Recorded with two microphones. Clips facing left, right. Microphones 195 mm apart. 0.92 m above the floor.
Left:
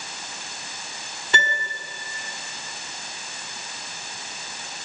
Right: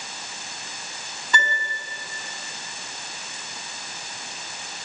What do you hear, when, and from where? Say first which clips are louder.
1.3 s a piano: even; 30° left (ahead or behind), 3 m